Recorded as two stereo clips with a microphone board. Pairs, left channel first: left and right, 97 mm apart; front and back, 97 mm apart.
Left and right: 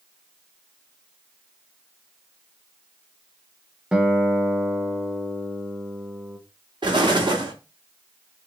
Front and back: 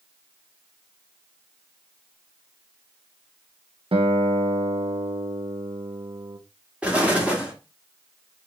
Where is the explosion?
110° right, 1.1 m.